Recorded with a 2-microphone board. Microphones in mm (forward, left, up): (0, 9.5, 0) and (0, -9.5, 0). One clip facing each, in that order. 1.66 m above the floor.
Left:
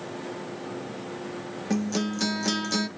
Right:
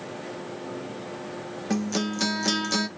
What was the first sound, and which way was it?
A guitar, 15° right (ahead or behind).